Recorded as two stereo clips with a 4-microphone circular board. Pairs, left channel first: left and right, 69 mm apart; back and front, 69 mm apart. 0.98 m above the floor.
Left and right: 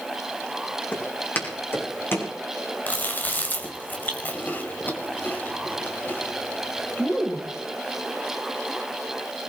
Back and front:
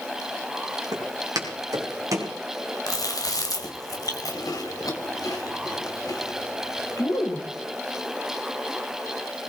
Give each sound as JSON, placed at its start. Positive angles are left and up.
{"t": 0.9, "sound": "footsteps", "azimuth_deg": 25, "distance_m": 4.0}
{"t": 2.9, "sound": "chewing", "azimuth_deg": 155, "distance_m": 2.0}